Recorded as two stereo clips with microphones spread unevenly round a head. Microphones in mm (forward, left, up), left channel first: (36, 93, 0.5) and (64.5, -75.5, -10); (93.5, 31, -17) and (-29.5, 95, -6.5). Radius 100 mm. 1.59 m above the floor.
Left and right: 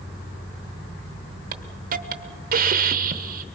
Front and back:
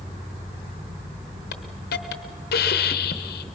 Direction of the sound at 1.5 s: 45° right.